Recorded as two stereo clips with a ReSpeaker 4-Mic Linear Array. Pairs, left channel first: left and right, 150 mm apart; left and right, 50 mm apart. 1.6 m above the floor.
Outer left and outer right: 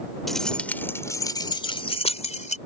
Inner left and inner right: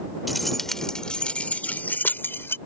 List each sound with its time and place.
0.3 s keys jangling: centre (ahead or behind); by 2.6 s 55° left (ahead or behind)